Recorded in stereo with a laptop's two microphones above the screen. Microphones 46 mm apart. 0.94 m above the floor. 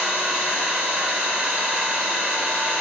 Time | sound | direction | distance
0.0 | an engine running | 30° right (ahead or behind) | 2 m